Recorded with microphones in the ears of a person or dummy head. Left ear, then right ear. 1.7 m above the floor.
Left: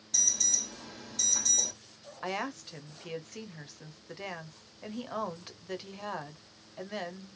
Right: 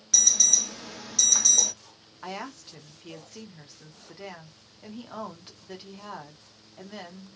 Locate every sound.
0.1 s an alarm: 50° right (ahead or behind), 0.8 m
2.2 s a woman speaking: 15° left (ahead or behind), 0.7 m